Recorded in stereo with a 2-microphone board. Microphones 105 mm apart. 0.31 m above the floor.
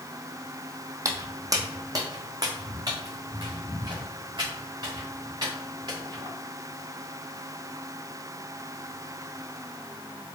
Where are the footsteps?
35° right (ahead or behind), 0.8 m; by 6.3 s 45° right (ahead or behind), 4 m.